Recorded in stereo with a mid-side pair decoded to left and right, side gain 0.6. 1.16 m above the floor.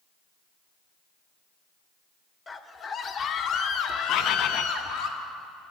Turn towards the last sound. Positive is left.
turn(degrees=60)